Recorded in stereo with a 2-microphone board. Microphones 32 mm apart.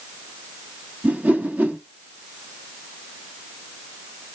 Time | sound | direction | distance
1.0 | a whoosh | 80° right | 1.1 m